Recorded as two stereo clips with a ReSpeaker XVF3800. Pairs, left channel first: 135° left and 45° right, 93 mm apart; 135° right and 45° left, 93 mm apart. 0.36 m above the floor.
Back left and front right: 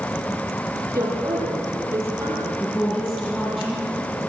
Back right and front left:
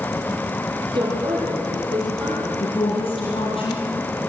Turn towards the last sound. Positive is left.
turn(degrees=-155)